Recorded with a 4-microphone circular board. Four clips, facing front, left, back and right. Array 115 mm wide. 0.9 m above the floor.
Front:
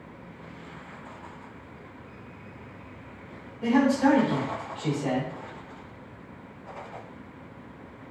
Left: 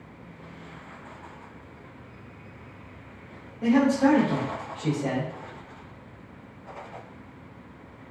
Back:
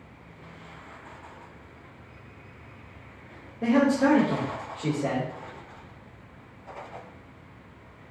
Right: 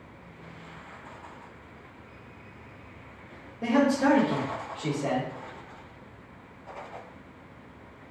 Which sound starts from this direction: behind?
A man speaking, at 3.6 s.